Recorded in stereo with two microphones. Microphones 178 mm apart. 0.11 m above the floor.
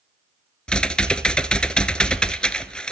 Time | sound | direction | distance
0.7 | typing on a keyboard | 5° left (ahead or behind) | 0.9 m